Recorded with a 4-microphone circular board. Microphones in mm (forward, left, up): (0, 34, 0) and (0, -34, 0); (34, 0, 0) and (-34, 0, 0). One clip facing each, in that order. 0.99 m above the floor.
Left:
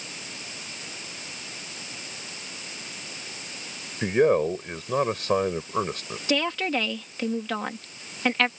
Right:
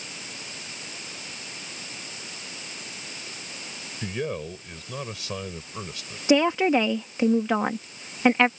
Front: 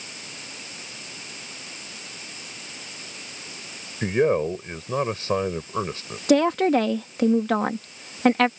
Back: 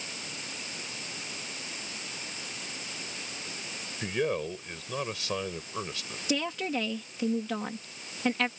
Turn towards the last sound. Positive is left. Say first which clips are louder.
# right 6 dB, front 13 dB
turn(degrees=-20)